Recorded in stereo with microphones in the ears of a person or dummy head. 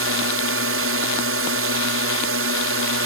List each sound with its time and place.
0.0 s a drone: 70° right (ahead or behind)